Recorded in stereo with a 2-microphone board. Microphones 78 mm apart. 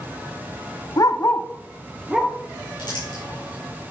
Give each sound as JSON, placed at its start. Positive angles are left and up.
{"t": 1.0, "sound": "a dog barking", "side_deg": 55, "distance_m": 0.7}
{"t": 2.8, "sound": "crumpling", "side_deg": 70, "distance_m": 4.5}